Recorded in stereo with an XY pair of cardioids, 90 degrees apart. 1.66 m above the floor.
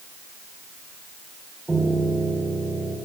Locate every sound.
1.7 s a piano: 20° right, 2 m